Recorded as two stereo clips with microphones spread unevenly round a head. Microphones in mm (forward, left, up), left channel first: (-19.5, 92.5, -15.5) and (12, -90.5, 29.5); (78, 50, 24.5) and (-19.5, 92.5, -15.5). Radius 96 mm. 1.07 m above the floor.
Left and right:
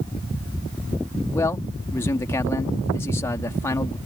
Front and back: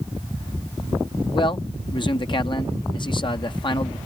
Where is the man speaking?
25° left.